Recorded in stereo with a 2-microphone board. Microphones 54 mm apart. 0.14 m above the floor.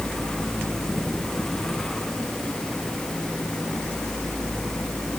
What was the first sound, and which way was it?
Only background noise.